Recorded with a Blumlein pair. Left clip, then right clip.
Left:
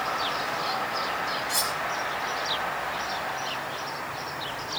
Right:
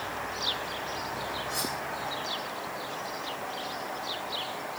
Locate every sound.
1.5 s cutlery clinking: 55° left, 3 m